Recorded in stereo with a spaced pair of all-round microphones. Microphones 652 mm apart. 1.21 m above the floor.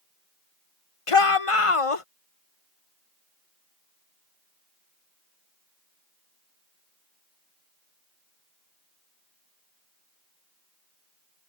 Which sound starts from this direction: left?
A shout, at 1.1 s.